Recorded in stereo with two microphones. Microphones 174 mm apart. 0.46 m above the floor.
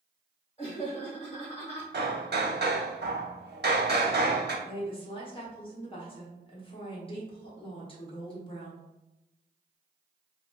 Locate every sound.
0.6 s laughter: 20° left (ahead or behind), 0.9 m
1.9 s hammering: 75° right (ahead or behind), 0.5 m
4.7 s a woman speaking: 30° left (ahead or behind), 0.8 m